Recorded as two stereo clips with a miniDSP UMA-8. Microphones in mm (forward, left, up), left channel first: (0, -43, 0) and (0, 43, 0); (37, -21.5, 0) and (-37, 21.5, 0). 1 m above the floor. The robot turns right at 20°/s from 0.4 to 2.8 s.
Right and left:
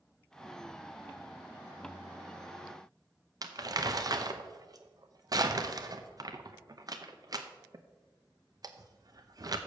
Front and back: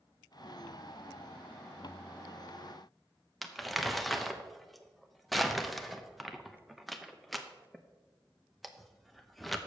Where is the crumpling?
60° left, 0.7 m.